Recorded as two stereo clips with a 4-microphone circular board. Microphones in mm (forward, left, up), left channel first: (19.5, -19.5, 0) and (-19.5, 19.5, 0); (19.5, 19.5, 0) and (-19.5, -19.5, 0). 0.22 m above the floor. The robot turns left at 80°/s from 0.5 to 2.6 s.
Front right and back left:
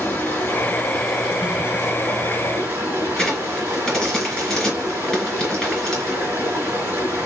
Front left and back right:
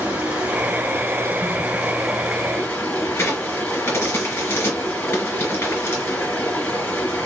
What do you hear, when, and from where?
0.0 s running water: 90° right, 1.3 m; by 7.3 s 100° left, 1.3 m
3.2 s a crack: 35° left, 1.8 m